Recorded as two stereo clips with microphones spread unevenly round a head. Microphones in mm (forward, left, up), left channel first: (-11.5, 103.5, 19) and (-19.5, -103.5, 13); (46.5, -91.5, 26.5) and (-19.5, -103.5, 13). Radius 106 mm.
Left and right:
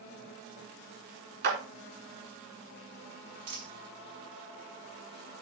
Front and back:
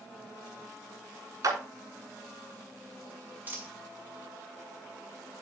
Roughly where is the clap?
Behind right.